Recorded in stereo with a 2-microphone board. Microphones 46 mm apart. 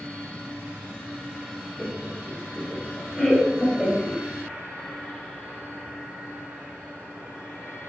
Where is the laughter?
15° right (ahead or behind), 0.9 m; by 4.2 s 5° left (ahead or behind), 1.3 m.